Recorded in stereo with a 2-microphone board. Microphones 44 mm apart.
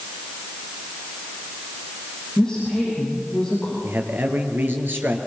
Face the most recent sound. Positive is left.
turn(degrees=-55)  # may be behind; listen again after turning